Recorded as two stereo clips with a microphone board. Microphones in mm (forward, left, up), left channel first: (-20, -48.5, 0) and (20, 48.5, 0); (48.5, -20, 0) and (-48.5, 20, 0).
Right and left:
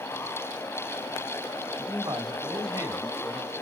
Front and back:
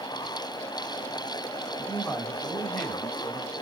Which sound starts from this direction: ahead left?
A man speaking, at 1.8 s.